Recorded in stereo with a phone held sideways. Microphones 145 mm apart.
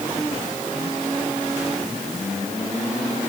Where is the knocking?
No knocking in this recording.